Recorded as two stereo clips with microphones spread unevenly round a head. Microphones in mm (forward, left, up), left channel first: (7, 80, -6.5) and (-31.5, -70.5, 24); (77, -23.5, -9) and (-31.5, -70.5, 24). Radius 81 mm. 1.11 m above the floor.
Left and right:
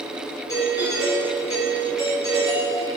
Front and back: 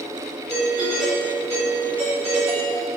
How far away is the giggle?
I don't hear a giggle.